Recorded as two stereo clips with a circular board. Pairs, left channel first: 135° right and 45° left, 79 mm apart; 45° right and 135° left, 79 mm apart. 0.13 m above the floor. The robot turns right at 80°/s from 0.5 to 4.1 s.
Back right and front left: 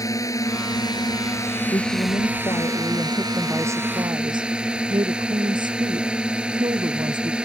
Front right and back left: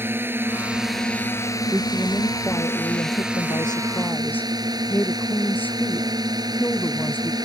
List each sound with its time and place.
0.0 s a drone: 170° right; by 7.5 s 120° left
1.7 s a woman speaking: 170° right; by 7.5 s 25° left